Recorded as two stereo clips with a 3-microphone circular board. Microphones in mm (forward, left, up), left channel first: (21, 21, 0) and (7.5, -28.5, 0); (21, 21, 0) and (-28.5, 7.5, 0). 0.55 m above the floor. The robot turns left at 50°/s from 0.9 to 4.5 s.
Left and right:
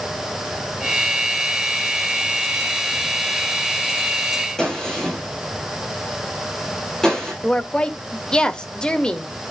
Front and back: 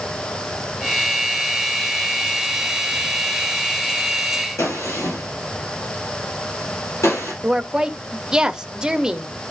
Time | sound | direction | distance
4.6 | a gunshot | straight ahead | 8 m
7.4 | a woman speaking | 135° left | 1.1 m